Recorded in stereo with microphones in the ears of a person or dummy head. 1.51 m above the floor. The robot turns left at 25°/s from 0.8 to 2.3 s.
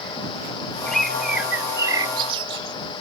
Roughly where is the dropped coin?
No dropped coin in this recording.